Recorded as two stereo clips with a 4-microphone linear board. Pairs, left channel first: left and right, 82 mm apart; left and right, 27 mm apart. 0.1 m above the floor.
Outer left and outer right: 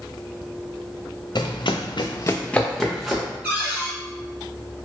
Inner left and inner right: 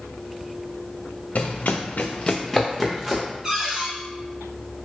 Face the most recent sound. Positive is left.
turn(degrees=-15)  # may be behind; listen again after turning